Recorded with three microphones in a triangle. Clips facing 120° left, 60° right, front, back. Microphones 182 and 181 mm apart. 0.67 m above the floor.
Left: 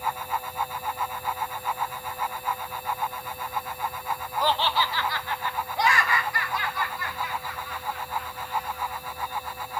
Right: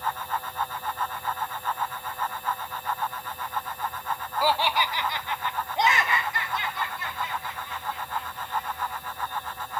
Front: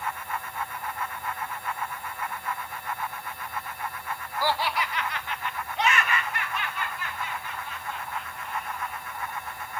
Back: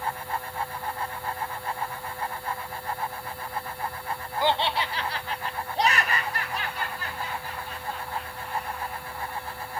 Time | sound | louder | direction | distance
4.4 | laughter | right 1 dB, back 2 dB | 140° right | 0.5 m